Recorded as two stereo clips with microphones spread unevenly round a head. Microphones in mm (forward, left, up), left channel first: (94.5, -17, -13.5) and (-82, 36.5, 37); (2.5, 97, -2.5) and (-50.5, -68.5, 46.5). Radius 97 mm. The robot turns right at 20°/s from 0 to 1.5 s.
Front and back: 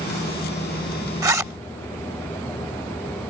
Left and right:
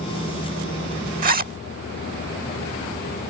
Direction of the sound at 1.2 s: 135° right.